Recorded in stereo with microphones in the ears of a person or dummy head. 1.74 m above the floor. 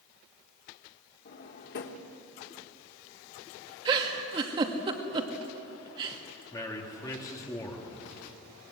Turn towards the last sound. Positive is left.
turn(degrees=20)  # may be behind; listen again after turning